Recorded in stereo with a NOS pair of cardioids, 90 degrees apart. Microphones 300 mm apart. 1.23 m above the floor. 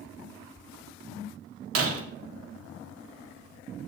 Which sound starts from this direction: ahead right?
Breaking glass, at 1.8 s.